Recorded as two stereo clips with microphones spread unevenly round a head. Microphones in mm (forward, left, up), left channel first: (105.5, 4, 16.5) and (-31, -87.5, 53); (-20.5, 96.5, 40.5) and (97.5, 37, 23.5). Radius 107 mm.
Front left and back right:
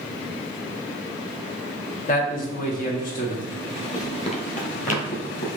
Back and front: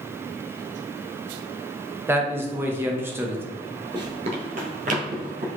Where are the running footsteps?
45° right, 1.0 m; by 5.5 s 5° right, 2.5 m.